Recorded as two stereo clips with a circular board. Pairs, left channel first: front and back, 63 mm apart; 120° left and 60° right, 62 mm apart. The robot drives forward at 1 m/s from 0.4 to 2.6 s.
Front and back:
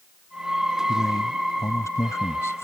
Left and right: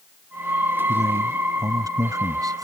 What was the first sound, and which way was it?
A man speaking, 35° right.